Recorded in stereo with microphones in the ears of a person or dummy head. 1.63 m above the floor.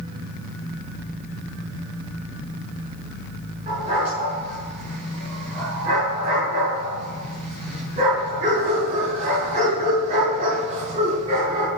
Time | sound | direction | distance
3.7 | a dog barking | 30° right (ahead or behind) | 6.5 m